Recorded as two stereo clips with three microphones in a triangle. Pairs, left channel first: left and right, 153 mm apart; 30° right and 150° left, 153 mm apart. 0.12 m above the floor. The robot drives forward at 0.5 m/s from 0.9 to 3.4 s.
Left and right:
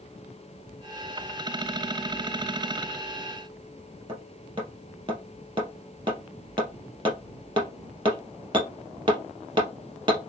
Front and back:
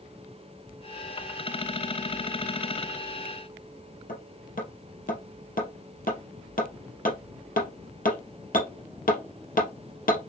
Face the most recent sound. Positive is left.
turn(degrees=-35)